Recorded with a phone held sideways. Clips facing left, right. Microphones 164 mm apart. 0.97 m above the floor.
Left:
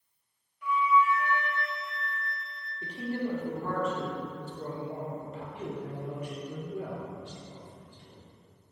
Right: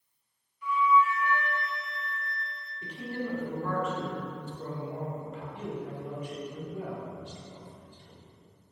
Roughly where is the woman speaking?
Left.